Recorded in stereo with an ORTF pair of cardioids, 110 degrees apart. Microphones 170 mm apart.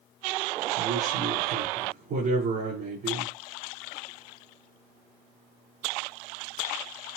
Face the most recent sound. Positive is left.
turn(degrees=-65)